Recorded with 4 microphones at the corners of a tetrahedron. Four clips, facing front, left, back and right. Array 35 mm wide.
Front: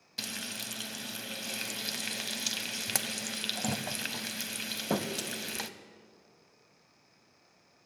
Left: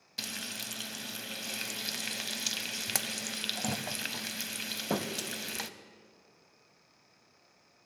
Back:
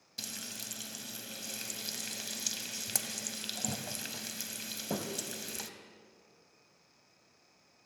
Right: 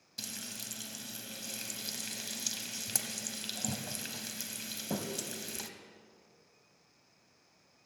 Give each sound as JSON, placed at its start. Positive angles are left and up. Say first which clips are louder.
{"t": 0.2, "sound": "frying", "louder": "left 5 dB, front 5 dB", "azimuth_deg": 45, "distance_m": 0.7}